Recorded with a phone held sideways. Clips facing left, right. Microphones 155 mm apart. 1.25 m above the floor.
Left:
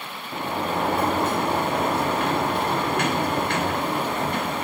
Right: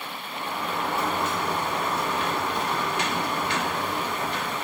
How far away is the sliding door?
About 1.2 m.